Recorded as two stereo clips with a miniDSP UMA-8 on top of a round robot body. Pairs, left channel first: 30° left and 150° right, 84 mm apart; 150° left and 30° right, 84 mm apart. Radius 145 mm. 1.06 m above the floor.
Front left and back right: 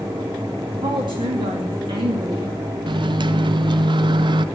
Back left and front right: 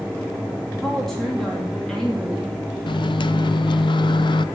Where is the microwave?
Straight behind, 0.7 m.